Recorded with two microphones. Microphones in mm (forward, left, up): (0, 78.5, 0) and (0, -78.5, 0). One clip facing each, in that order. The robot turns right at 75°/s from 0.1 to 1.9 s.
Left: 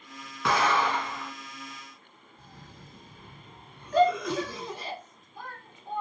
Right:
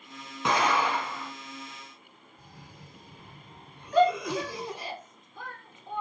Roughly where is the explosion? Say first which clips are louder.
Even; centre.